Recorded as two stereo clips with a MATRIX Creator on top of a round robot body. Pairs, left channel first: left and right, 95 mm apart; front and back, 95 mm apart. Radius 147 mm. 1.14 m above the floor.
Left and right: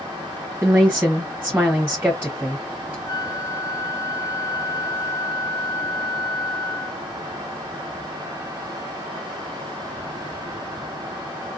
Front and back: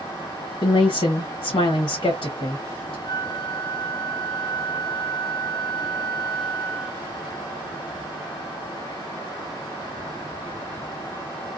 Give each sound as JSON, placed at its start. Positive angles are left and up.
{"t": 0.6, "sound": "a woman speaking", "azimuth_deg": -15, "distance_m": 1.0}
{"t": 3.0, "sound": "a flute", "azimuth_deg": 40, "distance_m": 0.8}